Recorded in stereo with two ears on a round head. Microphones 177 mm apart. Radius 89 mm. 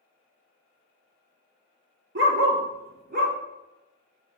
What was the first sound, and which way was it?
A dog barking, 60° right (ahead or behind).